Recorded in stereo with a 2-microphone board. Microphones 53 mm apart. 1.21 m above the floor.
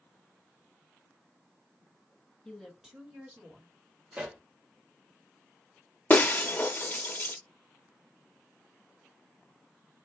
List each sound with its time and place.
2.5 s a woman speaking: 5° left (ahead or behind), 2 m; by 3.7 s 40° right (ahead or behind), 2.5 m
4.1 s a pop: 20° right (ahead or behind), 1.1 m
6.1 s breaking glass: 35° left (ahead or behind), 0.7 m